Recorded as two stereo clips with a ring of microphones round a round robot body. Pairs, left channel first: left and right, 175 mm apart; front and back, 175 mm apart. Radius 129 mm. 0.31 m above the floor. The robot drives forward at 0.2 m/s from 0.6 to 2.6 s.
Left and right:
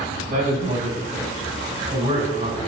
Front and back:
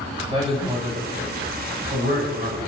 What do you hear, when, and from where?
0.3 s a woman speaking: 125° right, 1.2 m; by 2.7 s 140° right, 1.4 m